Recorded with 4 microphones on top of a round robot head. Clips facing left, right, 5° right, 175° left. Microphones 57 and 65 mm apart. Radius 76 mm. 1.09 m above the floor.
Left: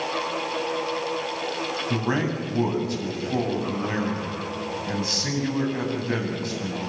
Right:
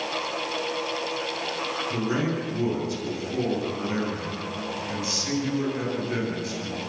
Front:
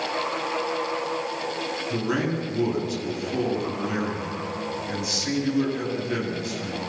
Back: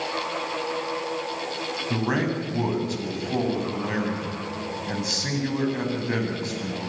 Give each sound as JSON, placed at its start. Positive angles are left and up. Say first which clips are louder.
{"t": 1.9, "sound": "a man speaking", "louder": "left 1 dB, back 1 dB", "azimuth_deg": 130, "distance_m": 8.5}